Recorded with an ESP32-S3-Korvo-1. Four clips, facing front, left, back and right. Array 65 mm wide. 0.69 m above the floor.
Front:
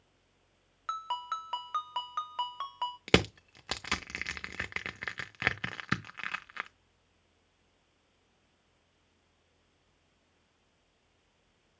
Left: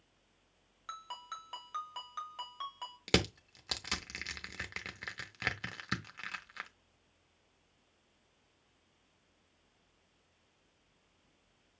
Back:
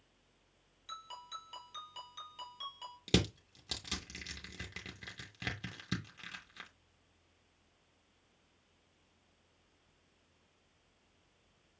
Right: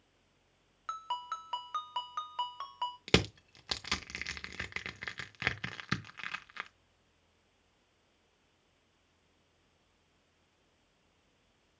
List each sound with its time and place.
0.9 s a ringtone: 20° right, 1.1 m
3.1 s crushing: straight ahead, 0.5 m